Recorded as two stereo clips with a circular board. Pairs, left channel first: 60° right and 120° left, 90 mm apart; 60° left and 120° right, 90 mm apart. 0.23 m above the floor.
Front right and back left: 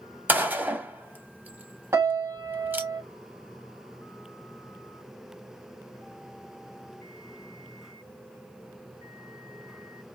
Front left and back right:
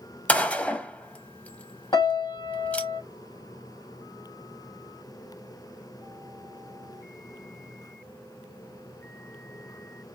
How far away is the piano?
About 0.8 m.